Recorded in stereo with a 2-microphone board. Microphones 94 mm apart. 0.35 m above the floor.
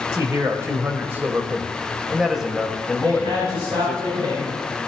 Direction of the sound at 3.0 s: 70° right (ahead or behind).